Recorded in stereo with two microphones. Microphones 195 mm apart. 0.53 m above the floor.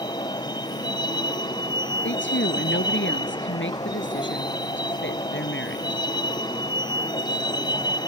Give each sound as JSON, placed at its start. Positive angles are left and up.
{"t": 0.0, "sound": "a vehicle", "side_deg": 20}
{"t": 2.0, "sound": "a woman speaking", "side_deg": 80}